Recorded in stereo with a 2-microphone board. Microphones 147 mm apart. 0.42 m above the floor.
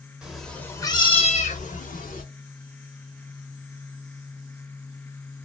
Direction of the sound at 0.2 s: 5° right (ahead or behind).